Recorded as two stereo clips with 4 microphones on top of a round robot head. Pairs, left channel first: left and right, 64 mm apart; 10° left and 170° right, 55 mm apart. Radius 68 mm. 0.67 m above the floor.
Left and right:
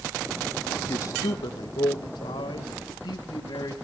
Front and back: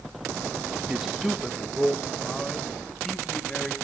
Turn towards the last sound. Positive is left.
turn(degrees=90)